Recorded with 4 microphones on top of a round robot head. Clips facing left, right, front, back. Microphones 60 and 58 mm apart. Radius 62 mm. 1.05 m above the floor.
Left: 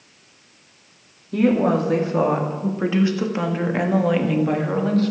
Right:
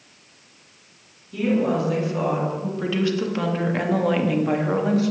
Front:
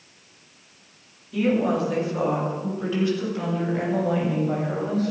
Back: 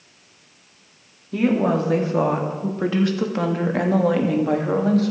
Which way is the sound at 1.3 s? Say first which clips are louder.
Left 4 dB, back 2 dB; 130° left.